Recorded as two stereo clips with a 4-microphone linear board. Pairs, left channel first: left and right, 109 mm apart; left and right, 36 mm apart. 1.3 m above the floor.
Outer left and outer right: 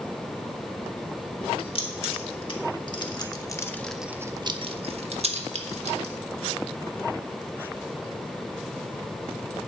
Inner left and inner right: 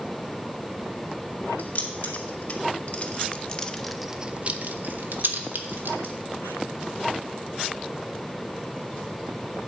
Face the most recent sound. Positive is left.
turn(degrees=-80)